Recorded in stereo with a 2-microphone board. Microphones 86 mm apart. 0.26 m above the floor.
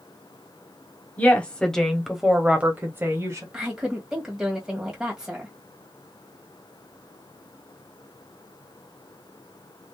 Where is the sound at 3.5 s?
10° right (ahead or behind), 1.4 m.